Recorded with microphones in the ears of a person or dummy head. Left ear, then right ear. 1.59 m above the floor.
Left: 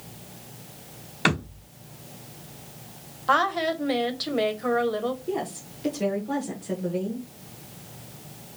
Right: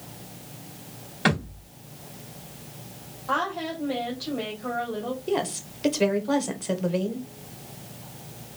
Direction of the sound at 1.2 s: 20° left (ahead or behind).